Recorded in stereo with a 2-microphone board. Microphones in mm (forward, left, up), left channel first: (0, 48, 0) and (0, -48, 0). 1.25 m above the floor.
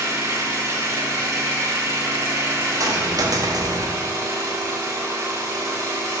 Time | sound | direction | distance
0.0 | an engine running | 30° right (ahead or behind) | 1.2 m
2.8 | a dropped coin | 40° right (ahead or behind) | 0.8 m